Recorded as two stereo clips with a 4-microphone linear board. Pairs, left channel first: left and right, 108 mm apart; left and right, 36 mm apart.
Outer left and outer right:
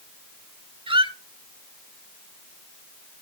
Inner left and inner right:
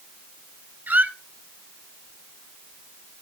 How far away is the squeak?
About 0.7 m.